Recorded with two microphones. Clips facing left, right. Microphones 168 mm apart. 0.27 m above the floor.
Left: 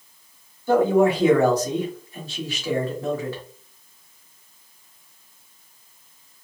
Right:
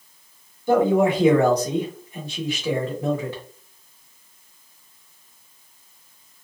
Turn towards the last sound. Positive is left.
turn(degrees=-20)  # may be behind; listen again after turning